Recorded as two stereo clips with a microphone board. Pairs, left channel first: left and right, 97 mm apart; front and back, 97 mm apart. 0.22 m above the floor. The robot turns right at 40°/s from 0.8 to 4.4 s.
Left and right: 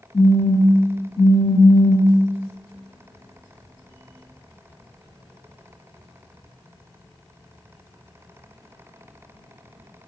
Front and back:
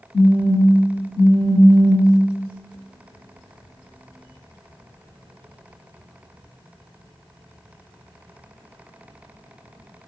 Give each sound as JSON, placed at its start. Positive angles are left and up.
{"t": 0.1, "sound": "a phone buzzing", "azimuth_deg": 40, "distance_m": 1.5}